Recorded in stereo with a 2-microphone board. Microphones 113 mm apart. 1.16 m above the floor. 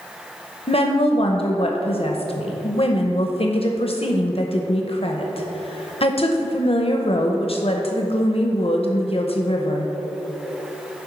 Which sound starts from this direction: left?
A woman speaking, at 0.7 s.